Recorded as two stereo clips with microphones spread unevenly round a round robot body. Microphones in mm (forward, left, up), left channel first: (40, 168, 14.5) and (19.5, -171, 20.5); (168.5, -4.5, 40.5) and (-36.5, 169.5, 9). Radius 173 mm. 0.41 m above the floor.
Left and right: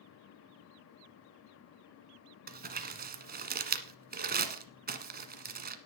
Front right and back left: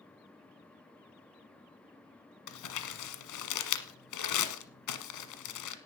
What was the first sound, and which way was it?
Crumpling, 30° right.